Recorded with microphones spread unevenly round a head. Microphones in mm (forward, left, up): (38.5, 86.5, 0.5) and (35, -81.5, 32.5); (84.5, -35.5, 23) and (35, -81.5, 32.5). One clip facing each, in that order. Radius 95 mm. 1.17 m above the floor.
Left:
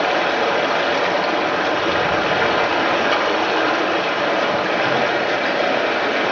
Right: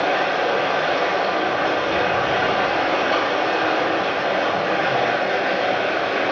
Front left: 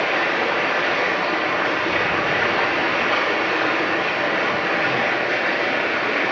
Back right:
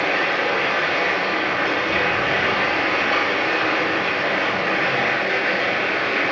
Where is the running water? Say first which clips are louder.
Left 2 dB, even; 115° left, 1.1 m.